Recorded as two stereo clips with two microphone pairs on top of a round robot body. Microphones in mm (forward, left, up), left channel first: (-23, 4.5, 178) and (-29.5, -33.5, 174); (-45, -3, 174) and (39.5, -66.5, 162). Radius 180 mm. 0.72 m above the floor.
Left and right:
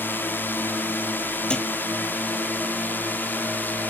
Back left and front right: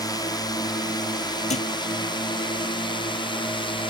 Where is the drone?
90° left; by 3.9 s 110° left.